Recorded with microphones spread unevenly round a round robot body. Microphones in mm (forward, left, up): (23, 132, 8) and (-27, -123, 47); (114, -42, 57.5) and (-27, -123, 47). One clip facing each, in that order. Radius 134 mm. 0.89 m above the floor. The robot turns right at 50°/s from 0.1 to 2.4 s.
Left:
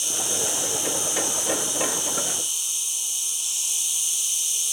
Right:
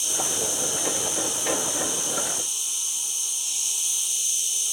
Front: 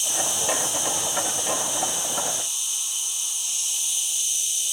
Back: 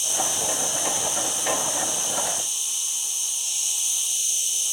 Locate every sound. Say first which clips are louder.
0.0 s an insect: even, even; 15° left, 1.8 m; by 4.7 s 130° left, 1.8 m